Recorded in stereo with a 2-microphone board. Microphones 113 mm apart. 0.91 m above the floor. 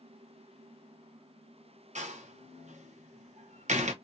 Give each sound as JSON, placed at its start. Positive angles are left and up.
{"t": 1.9, "sound": "a door slam", "side_deg": -80, "distance_m": 0.8}